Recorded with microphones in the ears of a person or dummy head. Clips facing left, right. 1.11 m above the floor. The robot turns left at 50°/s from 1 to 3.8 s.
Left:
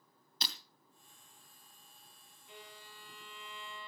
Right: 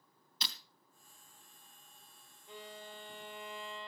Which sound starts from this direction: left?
Breaking glass, at 0.4 s.